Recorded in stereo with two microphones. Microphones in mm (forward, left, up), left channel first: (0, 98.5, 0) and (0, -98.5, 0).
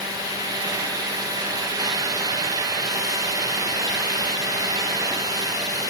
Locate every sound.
Only background noise.